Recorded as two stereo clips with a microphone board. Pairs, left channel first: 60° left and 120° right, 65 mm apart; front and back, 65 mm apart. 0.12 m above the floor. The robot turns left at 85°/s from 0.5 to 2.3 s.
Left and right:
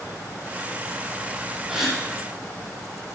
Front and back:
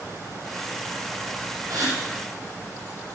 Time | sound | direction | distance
1.7 | a gasp | 165° left | 3 m